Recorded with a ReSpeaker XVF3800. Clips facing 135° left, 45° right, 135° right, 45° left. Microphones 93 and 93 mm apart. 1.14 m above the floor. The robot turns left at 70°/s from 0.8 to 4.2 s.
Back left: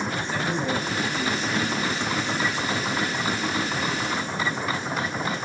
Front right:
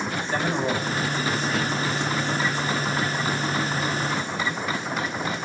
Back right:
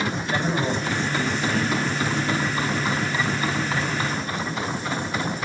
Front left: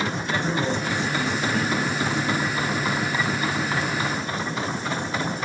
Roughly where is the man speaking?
Right.